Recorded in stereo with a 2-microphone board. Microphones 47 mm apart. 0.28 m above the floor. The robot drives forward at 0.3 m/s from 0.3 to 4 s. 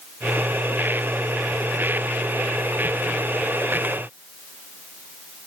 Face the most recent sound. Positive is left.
No sound to turn to.